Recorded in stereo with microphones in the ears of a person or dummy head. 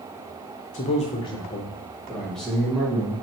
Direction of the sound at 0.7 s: 35° left (ahead or behind).